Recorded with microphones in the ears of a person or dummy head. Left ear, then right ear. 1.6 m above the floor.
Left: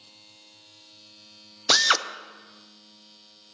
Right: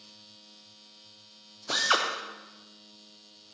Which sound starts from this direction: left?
A drill, at 1.7 s.